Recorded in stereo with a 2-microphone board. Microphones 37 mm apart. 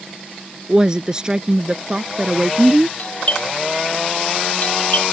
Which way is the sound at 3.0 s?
45° left (ahead or behind).